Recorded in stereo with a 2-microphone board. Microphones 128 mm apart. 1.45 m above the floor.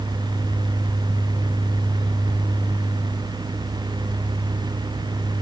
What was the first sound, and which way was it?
Only background noise.